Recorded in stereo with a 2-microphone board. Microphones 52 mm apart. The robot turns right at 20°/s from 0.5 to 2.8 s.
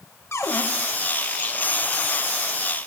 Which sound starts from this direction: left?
A cupboard door, at 0.3 s.